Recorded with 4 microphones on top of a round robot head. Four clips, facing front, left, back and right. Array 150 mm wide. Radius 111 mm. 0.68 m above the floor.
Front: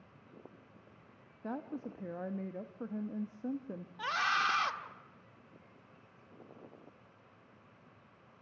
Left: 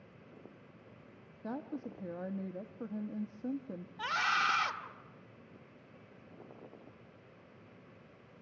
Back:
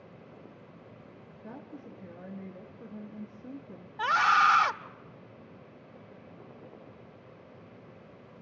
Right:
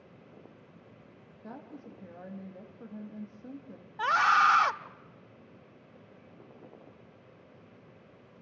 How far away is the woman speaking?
About 1.2 m.